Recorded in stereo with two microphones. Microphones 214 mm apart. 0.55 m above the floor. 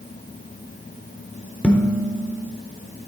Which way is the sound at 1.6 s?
5° left (ahead or behind).